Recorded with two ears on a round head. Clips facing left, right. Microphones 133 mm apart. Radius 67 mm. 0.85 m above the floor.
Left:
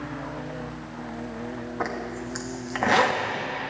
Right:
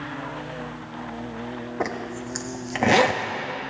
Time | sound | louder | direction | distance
1.8 | a zipper | right 2 dB | 25° right (ahead or behind) | 0.8 m